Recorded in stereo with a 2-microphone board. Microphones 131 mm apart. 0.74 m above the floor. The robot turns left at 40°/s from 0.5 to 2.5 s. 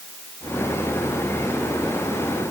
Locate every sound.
Only background noise.